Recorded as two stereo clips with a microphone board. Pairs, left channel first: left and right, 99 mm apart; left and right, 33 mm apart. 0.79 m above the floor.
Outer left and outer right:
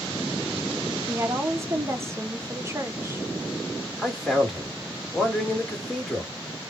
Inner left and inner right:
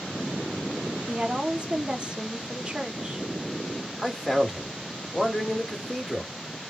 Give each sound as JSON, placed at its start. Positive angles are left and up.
{"t": 1.1, "sound": "a woman speaking", "side_deg": -30, "distance_m": 0.8}
{"t": 4.0, "sound": "a man speaking", "side_deg": 0, "distance_m": 2.0}